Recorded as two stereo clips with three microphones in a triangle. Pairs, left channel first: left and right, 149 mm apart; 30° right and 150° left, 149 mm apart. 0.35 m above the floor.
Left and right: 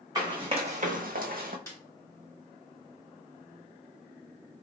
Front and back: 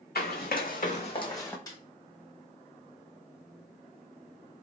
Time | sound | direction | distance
0.1 | running footsteps | 25° right | 1.1 m
1.7 | a snare drum | 25° left | 1.3 m